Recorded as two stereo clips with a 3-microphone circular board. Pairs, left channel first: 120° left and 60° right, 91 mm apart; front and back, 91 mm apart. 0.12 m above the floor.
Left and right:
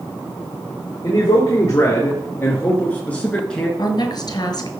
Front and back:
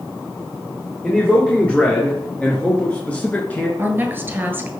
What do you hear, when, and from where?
1.0 s a man speaking: 80° left, 3 m; by 3.7 s 45° left, 1.9 m
3.8 s a woman speaking: 120° left, 1.7 m